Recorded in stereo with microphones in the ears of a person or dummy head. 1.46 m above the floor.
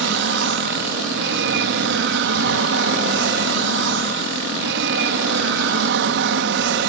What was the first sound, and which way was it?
An aircraft, 60° right (ahead or behind).